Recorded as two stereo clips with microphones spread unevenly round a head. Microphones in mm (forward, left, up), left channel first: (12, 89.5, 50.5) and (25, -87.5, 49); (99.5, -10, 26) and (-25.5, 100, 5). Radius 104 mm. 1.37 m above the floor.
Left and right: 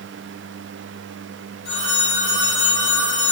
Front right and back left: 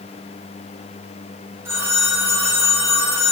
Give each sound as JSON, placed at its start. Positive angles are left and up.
{"t": 1.6, "sound": "a phone ringing", "azimuth_deg": 60, "distance_m": 3.5}